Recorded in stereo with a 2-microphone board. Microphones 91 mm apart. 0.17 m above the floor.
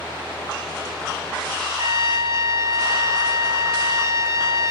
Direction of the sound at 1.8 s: 40° right (ahead or behind).